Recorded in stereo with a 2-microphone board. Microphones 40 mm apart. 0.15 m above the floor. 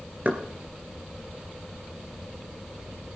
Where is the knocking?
40° right (ahead or behind), 2.5 m.